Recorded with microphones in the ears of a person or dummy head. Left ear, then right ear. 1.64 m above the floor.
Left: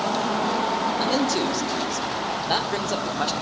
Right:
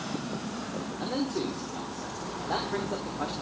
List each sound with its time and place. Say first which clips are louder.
1.0 s a man speaking: left 9 dB; 75° left (ahead or behind), 1.0 m